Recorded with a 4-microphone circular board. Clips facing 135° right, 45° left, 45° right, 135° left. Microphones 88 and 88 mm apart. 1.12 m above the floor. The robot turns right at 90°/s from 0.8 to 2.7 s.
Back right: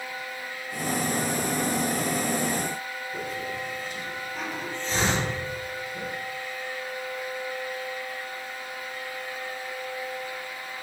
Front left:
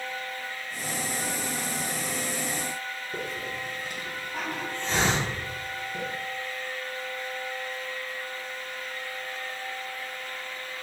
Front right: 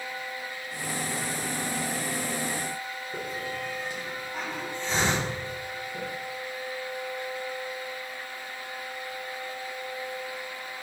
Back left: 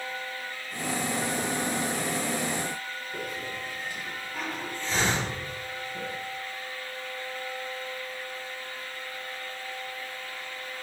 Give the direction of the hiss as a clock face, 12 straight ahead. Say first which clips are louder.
Back right 2 dB, front right 2 dB; 11 o'clock.